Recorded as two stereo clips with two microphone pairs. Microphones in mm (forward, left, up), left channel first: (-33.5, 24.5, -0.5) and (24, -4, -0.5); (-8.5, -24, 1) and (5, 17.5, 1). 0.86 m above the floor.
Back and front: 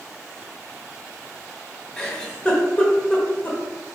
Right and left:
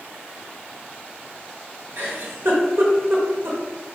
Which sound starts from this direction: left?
A giggle, at 2.0 s.